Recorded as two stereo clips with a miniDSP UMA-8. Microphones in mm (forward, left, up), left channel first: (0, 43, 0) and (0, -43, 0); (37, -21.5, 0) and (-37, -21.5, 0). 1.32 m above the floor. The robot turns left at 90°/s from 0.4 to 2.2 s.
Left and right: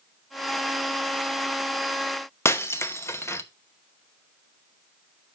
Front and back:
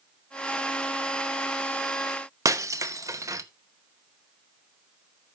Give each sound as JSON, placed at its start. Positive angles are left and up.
{"t": 2.5, "sound": "breaking glass", "azimuth_deg": 145, "distance_m": 0.9}